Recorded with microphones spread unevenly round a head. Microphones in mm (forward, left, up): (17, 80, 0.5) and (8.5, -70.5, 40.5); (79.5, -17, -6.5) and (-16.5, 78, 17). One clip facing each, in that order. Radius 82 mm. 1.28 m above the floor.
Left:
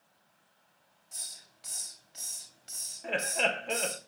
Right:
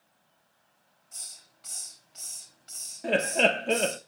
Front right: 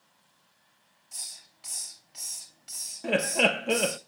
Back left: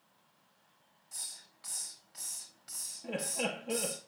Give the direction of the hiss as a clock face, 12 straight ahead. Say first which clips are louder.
Left 1 dB, front right 2 dB; 11 o'clock.